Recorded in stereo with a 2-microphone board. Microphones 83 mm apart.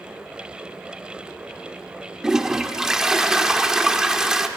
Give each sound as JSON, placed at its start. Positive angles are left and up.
{"t": 2.2, "sound": "a toilet flushing", "side_deg": -10, "distance_m": 1.0}